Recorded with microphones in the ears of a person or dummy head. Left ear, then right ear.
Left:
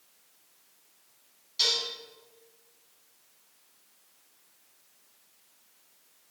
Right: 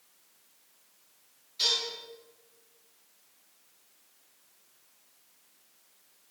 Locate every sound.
1.6 s dishes clattering: 35° left (ahead or behind), 6.5 m